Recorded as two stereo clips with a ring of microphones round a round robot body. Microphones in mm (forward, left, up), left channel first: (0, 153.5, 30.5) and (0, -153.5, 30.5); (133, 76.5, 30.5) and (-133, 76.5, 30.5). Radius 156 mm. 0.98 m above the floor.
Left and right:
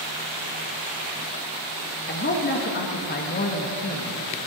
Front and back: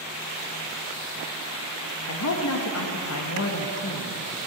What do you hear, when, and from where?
2.1 s a man speaking: 30° left, 1.2 m